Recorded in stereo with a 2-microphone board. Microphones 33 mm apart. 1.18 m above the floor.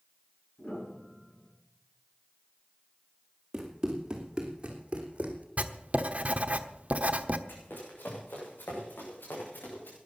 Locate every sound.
0.6 s a piano: 40° left (ahead or behind), 7.5 m
3.5 s running footsteps: 20° right (ahead or behind), 3.5 m; by 5.5 s 45° right (ahead or behind), 2.5 m
5.6 s writing: 45° right (ahead or behind), 1.1 m
7.5 s running footsteps: 75° left (ahead or behind), 5 m